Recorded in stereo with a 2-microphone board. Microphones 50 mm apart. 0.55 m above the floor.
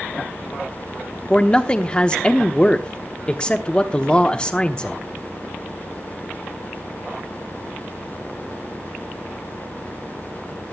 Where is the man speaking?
20° left (ahead or behind), 0.9 m.